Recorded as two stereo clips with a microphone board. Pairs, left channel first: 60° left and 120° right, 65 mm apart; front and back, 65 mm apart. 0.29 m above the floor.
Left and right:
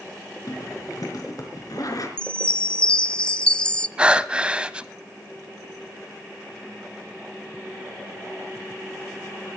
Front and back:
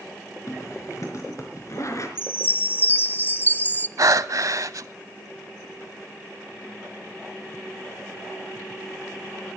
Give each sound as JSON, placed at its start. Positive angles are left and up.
{"t": 0.5, "sound": "a zipper", "azimuth_deg": 35, "distance_m": 4.0}
{"t": 2.2, "sound": "a chime", "azimuth_deg": 0, "distance_m": 0.7}
{"t": 4.0, "sound": "breathing", "azimuth_deg": 165, "distance_m": 0.7}